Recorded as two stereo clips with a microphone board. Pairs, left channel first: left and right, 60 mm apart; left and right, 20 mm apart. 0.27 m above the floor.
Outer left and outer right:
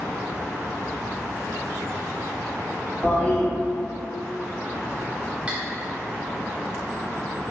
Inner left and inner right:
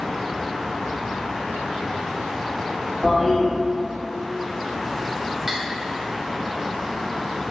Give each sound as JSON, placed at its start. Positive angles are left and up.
{"t": 3.0, "sound": "a toilet flushing", "side_deg": 25, "distance_m": 1.6}
{"t": 5.5, "sound": "cutlery clinking", "side_deg": -25, "distance_m": 0.6}